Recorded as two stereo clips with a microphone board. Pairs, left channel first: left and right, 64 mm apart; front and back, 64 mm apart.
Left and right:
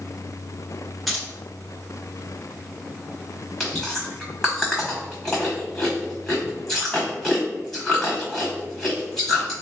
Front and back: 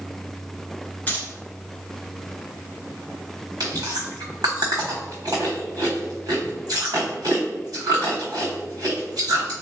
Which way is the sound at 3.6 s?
170° left.